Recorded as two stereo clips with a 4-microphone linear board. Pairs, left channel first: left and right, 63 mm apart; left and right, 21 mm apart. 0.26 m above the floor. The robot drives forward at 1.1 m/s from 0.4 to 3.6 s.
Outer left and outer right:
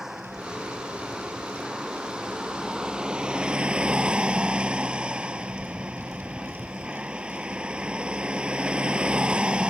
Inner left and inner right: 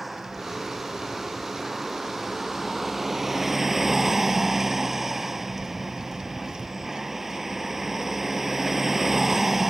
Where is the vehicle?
5° right (ahead or behind); by 9.7 s 15° right (ahead or behind).